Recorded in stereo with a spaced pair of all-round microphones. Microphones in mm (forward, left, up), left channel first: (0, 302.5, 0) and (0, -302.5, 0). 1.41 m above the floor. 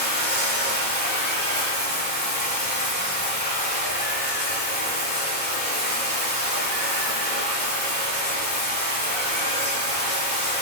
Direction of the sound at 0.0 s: 15° left (ahead or behind).